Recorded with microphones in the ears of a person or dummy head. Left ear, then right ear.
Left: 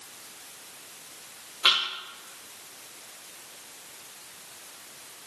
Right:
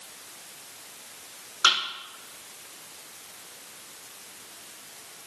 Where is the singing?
No singing in this recording.